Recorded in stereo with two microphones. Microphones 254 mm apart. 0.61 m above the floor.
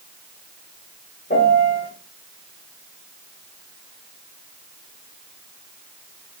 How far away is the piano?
About 1.2 m.